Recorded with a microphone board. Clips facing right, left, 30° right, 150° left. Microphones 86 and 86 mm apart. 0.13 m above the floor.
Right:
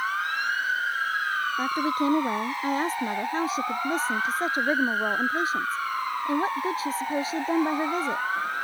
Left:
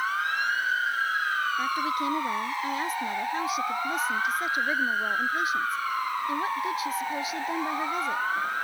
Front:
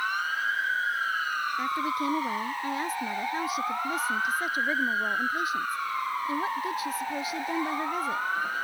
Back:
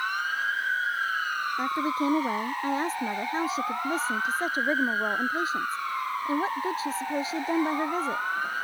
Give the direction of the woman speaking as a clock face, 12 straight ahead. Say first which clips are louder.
Right 2 dB, back 3 dB; 5 o'clock.